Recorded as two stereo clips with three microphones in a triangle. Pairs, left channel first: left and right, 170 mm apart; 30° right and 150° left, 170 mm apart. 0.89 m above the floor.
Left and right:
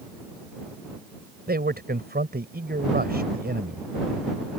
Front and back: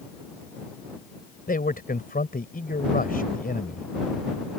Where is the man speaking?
65° right.